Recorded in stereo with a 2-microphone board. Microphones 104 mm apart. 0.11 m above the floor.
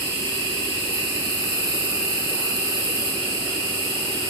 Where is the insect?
45° right (ahead or behind), 2.5 m.